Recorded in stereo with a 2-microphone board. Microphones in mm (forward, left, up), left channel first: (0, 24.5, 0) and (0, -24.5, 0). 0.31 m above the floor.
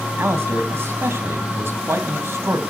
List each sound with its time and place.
0.2 s a man speaking: 55° right (ahead or behind), 2.5 m